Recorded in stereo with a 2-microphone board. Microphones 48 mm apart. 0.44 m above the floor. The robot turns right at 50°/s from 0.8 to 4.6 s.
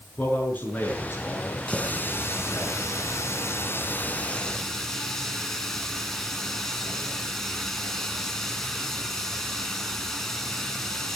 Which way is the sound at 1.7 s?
25° left.